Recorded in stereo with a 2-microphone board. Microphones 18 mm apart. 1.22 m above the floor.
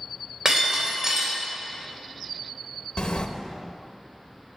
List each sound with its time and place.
0.5 s breaking glass: 40° right (ahead or behind), 3 m
3.0 s a sliding door: 75° left (ahead or behind), 0.9 m